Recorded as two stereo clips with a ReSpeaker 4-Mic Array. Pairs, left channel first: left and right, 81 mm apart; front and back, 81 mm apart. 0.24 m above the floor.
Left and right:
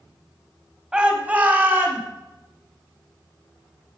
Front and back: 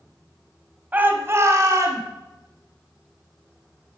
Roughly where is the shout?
Behind right.